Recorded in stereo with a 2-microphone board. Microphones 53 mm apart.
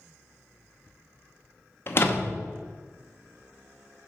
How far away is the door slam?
About 0.9 m.